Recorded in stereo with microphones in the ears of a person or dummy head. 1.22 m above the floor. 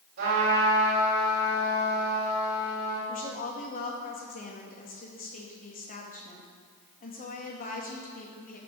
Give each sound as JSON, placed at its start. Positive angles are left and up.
{"t": 0.2, "sound": "a trumpet", "side_deg": -55, "distance_m": 4.0}
{"t": 3.1, "sound": "a woman speaking", "side_deg": 45, "distance_m": 2.0}